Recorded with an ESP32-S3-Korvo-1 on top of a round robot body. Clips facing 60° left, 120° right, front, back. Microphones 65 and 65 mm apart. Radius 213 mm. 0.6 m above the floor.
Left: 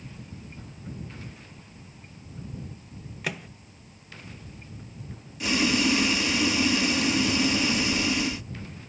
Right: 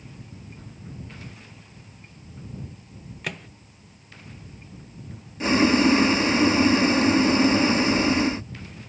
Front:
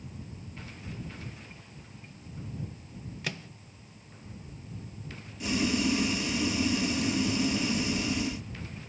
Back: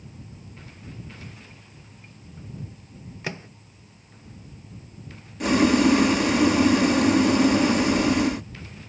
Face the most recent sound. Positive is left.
turn(degrees=-170)